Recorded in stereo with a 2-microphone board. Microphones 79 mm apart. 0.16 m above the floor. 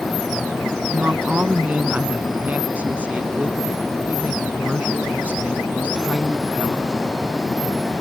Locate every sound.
0.9 s a woman speaking: 20° right (ahead or behind)